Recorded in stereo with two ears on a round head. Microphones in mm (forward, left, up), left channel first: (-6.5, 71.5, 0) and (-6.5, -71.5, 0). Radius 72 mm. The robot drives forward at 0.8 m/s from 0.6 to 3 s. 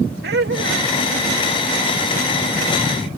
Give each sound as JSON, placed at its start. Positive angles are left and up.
{"t": 0.2, "sound": "laughter", "side_deg": -65}